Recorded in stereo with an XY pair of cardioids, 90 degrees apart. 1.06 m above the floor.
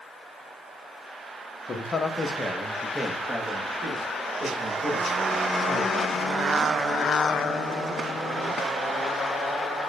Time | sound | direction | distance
1.7 | a man speaking | 45° left | 0.8 m